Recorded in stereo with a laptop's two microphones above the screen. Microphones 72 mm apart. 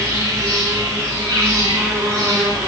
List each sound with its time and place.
0.0 s an insect: 50° right (ahead or behind), 1.8 m